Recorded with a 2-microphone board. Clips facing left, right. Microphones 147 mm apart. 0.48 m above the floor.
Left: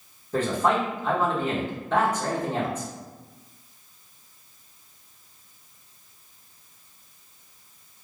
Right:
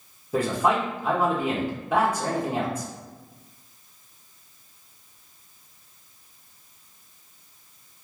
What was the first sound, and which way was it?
A man speaking, 10° right (ahead or behind).